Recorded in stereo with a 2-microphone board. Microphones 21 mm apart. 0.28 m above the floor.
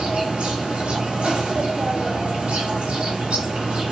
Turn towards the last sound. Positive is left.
turn(degrees=-85)